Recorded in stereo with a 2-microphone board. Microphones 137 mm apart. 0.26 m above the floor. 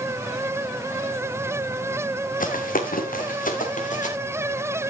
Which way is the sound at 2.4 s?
75° left (ahead or behind).